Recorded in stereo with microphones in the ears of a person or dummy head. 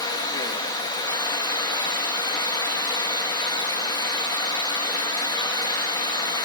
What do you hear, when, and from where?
0.0 s running water: 20° left (ahead or behind), 0.8 m